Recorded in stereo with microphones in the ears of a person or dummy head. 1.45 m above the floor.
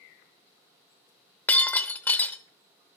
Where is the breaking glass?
10° left (ahead or behind), 0.7 m.